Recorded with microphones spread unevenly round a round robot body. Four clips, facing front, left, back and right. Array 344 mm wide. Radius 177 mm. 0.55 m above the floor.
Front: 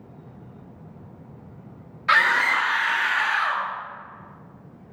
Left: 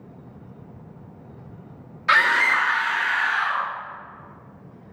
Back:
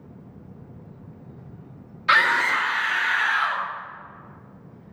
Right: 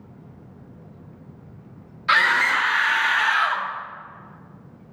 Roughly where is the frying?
No frying in this recording.